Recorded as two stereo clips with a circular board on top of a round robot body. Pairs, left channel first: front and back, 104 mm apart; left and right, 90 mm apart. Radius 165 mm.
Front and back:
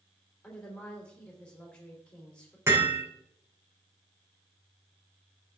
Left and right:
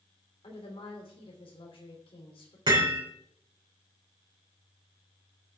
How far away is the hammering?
About 4.5 m.